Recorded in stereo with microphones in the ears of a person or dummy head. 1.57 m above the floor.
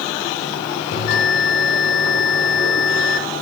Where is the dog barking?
No dog barking in this recording.